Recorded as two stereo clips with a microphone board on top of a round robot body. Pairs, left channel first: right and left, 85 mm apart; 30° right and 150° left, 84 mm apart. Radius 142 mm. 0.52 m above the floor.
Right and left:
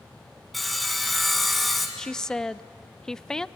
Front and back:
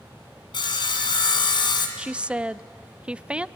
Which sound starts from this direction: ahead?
Sawing, at 0.5 s.